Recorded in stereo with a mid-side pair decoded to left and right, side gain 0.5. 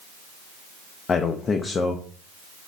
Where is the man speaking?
40° left, 0.6 m.